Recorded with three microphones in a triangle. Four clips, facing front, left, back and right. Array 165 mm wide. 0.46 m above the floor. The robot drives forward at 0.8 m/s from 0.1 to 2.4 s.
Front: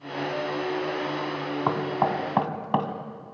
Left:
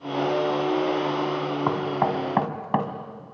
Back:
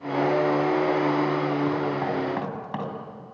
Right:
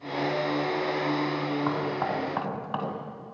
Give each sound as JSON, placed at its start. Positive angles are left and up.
{"t": 1.7, "sound": "knocking", "azimuth_deg": 40, "distance_m": 3.0}